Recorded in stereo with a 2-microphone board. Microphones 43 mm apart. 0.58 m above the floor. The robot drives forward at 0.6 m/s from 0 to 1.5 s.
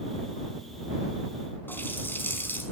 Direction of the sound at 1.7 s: 55° left (ahead or behind).